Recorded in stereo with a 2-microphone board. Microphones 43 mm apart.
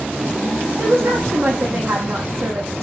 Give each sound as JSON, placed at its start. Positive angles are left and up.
{"t": 0.8, "sound": "a woman speaking", "side_deg": -80, "distance_m": 6.0}